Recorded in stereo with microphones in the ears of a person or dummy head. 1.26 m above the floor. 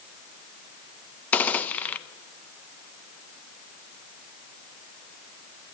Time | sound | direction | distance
1.3 | a gunshot | 10° left (ahead or behind) | 0.6 m